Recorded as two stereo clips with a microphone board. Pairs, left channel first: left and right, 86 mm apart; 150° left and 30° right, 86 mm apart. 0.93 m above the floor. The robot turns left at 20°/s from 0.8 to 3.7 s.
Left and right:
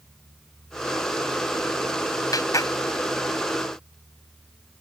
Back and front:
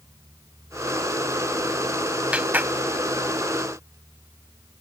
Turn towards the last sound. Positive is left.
turn(degrees=20)